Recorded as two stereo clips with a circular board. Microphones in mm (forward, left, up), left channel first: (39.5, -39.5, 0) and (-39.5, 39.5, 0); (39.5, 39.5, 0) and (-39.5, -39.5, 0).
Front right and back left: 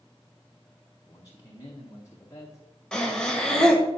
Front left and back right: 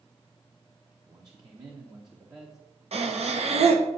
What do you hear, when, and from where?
1.1 s a man speaking: 95° right, 0.9 m
2.9 s breathing: 130° right, 0.9 m